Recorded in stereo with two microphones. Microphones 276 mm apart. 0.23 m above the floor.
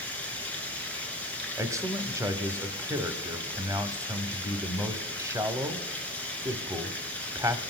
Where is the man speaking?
10° right (ahead or behind), 0.9 m.